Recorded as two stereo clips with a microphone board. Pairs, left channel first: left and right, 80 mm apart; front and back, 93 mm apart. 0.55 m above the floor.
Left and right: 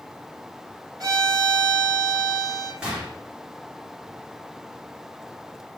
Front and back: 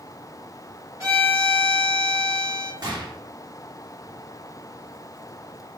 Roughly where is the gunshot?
Behind.